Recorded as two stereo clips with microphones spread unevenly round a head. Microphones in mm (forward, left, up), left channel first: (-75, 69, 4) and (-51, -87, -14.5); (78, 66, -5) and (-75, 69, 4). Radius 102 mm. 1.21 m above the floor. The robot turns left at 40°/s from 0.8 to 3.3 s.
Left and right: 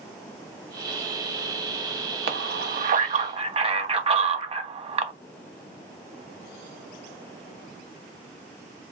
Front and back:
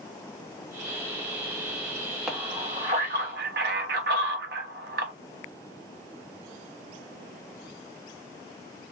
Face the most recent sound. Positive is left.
turn(degrees=-135)